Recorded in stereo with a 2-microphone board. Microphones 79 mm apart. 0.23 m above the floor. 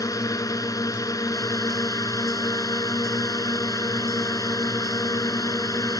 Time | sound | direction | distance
0.0 | a drone | 45° left (ahead or behind) | ?